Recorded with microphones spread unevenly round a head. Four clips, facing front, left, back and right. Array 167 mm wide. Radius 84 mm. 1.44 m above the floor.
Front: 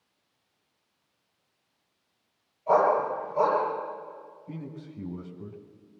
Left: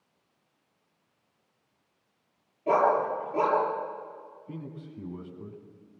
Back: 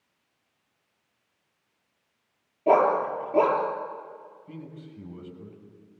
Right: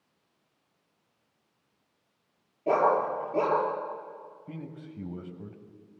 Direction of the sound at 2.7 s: 170° right.